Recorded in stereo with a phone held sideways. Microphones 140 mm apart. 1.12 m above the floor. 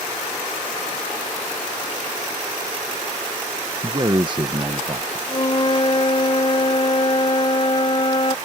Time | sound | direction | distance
3.8 | a man speaking | 35° right (ahead or behind) | ?
5.3 | a flute | 35° left (ahead or behind) | ?